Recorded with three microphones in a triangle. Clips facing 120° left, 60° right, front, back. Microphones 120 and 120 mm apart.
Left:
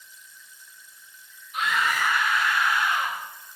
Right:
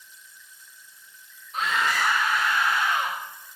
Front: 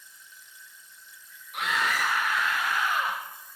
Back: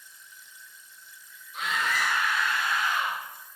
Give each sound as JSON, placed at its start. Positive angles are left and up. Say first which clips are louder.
{"t": 1.5, "sound": "a scream", "louder": "even, front 1 dB", "azimuth_deg": -5, "distance_m": 4.0}